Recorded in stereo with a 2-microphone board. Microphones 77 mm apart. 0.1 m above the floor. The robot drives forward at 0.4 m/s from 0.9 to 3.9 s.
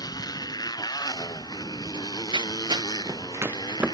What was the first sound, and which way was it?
A motorcycle, 55° left (ahead or behind).